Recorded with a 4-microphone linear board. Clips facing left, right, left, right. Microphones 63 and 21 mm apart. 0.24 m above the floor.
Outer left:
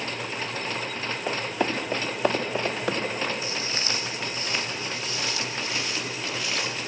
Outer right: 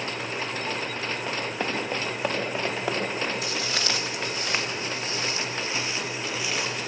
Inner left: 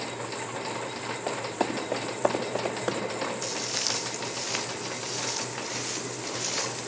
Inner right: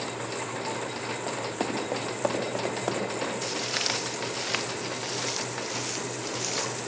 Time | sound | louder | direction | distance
1.3 | running footsteps | outer left 5 dB, inner left 3 dB | 10° left (ahead or behind) | 4 m
3.4 | footsteps | outer right 2 dB, inner right 1 dB | 80° right | 1.8 m